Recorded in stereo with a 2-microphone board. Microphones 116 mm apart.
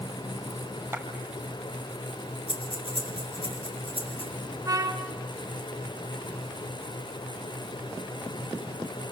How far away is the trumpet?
About 1.9 m.